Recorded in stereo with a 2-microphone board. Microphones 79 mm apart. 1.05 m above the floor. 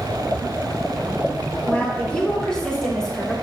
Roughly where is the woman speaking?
Centre.